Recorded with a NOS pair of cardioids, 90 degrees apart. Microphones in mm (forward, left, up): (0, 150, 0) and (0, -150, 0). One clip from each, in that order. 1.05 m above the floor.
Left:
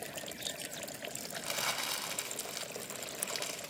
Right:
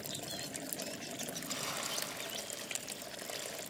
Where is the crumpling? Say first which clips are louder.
Left 6 dB; 70° left, 2 m.